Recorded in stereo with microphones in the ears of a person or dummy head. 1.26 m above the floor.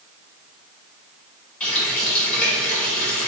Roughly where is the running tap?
Centre.